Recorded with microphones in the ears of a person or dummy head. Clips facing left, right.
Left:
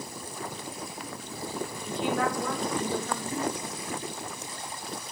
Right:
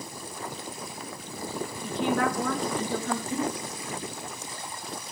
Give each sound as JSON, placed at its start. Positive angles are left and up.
{"t": 1.8, "sound": "a woman speaking", "side_deg": -50, "distance_m": 4.0}
{"t": 3.3, "sound": "a giggle", "side_deg": -20, "distance_m": 6.0}